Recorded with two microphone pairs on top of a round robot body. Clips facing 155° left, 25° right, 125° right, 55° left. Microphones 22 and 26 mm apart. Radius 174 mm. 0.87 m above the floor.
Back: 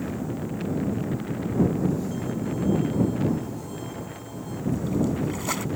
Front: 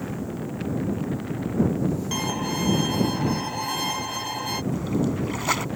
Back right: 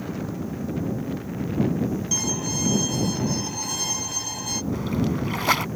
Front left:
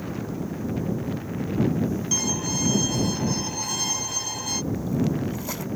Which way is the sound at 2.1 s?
30° right.